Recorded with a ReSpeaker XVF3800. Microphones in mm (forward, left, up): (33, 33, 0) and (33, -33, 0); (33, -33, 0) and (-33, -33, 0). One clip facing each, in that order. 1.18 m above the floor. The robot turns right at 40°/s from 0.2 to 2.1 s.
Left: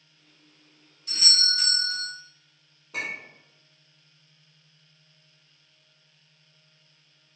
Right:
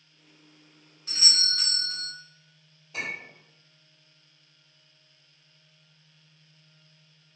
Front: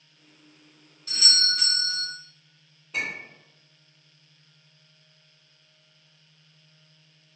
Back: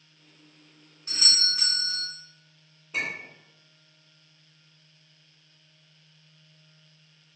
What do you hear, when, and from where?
1.1 s a doorbell: 125° right, 1.1 m; by 2.1 s 85° right, 1.1 m
2.9 s a clink: 95° left, 1.3 m